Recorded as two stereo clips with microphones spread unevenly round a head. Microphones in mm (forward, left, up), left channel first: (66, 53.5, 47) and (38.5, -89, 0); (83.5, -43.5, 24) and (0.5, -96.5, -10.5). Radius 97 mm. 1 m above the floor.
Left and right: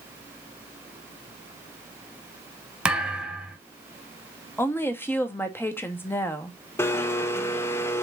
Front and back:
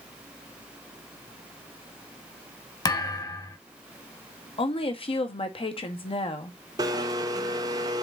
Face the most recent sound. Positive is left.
turn(degrees=160)